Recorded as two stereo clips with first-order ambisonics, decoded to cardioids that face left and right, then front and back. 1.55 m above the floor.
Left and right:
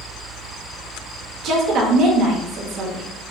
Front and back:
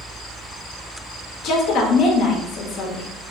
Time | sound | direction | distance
1.4 | a woman speaking | 45° right | 0.6 m